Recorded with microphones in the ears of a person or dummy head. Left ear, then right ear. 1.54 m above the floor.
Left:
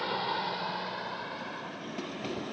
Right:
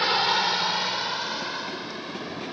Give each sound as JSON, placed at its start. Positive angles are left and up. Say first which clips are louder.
{"t": 0.0, "sound": "a vehicle", "louder": "right 10 dB", "side_deg": -70}